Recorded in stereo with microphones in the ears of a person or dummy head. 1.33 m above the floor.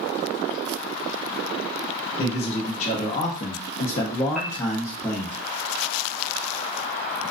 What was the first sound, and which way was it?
A man speaking, 35° left (ahead or behind).